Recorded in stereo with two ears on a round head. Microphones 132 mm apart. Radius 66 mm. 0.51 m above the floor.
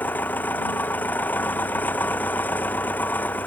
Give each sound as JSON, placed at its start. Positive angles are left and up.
{"t": 0.0, "sound": "an engine running", "side_deg": 10}